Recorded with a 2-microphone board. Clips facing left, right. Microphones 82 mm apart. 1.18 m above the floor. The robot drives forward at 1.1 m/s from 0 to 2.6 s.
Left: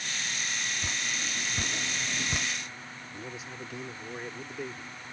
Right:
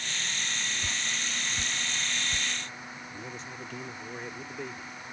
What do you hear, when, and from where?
0.8 s dripping: 25° left (ahead or behind); by 2.5 s 60° left (ahead or behind)
3.1 s a man speaking: 5° left (ahead or behind)